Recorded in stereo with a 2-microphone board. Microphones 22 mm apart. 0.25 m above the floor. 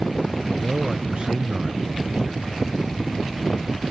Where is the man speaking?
35° right (ahead or behind).